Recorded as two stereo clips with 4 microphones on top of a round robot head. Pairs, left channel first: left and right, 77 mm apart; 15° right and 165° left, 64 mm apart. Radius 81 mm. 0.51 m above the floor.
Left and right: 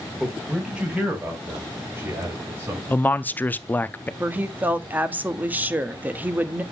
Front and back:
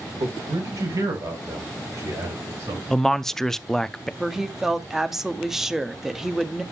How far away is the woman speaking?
About 1.0 m.